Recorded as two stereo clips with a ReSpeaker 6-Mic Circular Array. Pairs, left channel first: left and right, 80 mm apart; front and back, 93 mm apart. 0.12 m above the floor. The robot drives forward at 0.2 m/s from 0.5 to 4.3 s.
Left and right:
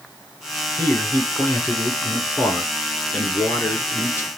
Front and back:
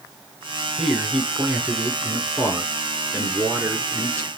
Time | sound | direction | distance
0.8 | a man speaking | 95° left | 1.4 m